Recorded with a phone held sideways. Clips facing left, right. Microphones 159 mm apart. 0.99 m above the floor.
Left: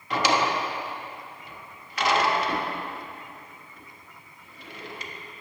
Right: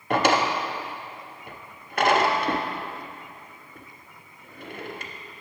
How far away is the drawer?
About 0.6 m.